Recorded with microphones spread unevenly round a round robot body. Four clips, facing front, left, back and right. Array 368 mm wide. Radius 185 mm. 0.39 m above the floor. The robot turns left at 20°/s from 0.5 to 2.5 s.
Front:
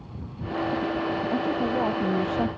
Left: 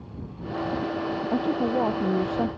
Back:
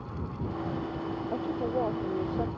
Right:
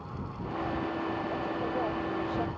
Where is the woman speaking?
75° left; by 2.5 s 50° left.